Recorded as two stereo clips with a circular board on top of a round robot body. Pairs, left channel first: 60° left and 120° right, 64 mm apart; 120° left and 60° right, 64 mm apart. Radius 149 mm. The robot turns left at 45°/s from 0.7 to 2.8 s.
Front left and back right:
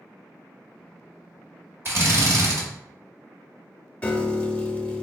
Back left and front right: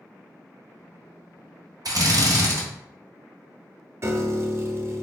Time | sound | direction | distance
1.9 | a drill | 70° right | 1.3 m
4.0 | a piano | 10° right | 0.6 m